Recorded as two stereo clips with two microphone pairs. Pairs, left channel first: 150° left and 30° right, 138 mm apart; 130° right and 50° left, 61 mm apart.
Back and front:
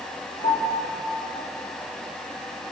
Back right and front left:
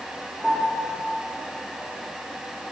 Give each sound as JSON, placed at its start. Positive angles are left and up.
{"t": 0.4, "sound": "a piano", "azimuth_deg": 135, "distance_m": 3.5}